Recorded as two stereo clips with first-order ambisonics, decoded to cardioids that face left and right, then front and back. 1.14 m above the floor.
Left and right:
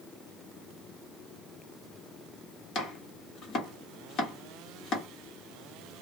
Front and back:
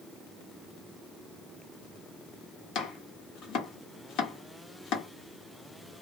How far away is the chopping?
About 1.1 m.